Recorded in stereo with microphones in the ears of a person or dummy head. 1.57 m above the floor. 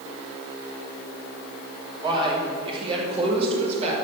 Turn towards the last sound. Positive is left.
turn(degrees=-40)  # may be behind; listen again after turning